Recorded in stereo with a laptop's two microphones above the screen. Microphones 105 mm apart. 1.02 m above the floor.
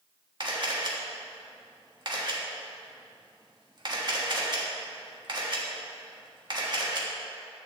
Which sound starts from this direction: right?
A camera shutter, at 0.4 s.